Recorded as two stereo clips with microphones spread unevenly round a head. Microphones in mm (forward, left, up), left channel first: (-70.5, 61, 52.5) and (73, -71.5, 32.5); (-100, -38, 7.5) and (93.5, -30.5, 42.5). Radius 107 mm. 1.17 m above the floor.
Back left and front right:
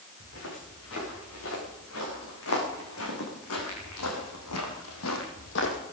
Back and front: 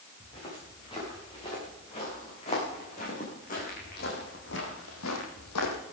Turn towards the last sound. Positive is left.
turn(degrees=170)